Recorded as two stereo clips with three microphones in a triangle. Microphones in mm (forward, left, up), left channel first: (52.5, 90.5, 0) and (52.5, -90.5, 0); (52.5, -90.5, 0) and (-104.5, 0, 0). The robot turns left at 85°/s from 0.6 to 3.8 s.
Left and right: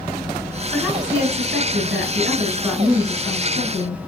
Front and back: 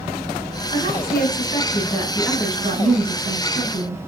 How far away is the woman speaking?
About 2.5 m.